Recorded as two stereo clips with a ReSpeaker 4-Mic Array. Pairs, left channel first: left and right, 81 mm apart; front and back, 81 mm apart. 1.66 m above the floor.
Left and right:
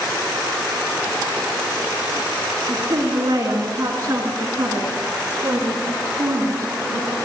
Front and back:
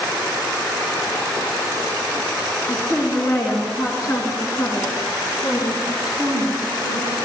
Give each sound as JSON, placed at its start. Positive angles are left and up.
{"t": 2.7, "sound": "a woman speaking", "azimuth_deg": -45, "distance_m": 8.5}